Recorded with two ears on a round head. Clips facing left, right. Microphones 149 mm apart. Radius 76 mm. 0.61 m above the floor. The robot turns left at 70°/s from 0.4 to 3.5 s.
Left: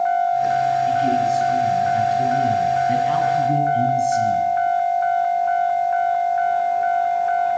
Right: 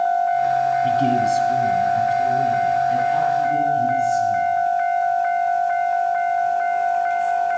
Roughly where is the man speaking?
Right.